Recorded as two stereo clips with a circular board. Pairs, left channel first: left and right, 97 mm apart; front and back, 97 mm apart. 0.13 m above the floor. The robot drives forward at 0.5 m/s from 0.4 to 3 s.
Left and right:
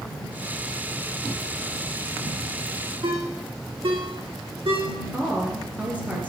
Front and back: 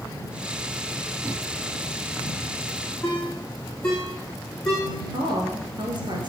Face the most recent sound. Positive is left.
turn(degrees=-160)